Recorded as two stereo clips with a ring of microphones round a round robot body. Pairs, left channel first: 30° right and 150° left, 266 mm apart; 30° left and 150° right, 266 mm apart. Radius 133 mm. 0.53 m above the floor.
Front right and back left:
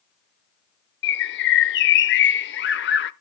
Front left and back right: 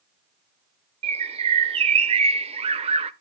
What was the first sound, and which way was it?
A bird, 80° right.